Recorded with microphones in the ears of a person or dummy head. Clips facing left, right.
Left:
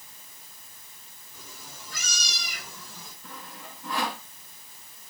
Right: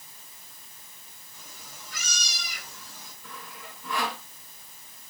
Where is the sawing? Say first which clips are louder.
Even; 30° left (ahead or behind), 3.5 m.